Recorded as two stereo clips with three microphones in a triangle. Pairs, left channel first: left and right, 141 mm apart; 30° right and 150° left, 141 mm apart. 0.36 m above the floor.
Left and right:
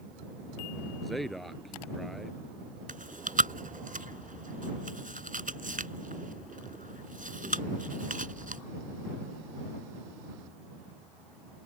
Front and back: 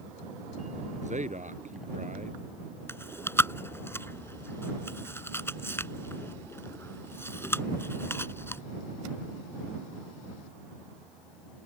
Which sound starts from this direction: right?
Chewing, at 2.9 s.